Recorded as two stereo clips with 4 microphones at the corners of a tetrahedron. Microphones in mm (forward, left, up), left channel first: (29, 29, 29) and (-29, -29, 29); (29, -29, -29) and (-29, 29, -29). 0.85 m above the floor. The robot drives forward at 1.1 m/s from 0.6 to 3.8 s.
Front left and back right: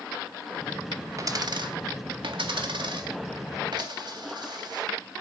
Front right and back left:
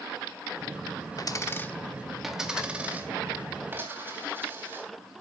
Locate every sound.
1.2 s a dropped coin: 85° right, 1.0 m; by 4.9 s 160° right, 3 m